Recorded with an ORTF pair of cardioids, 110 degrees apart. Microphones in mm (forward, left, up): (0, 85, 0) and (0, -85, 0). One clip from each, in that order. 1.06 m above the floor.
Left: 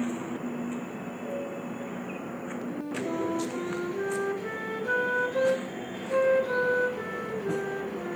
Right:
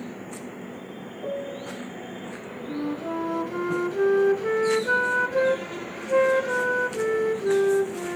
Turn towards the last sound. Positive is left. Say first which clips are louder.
# right 5 dB
turn(degrees=-35)